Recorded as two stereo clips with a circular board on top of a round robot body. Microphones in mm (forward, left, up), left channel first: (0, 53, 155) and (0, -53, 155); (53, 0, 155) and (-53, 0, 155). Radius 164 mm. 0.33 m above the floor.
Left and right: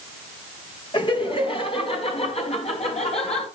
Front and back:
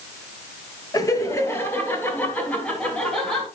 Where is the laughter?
55° left, 3.5 m; by 3.5 s 85° left, 5.5 m.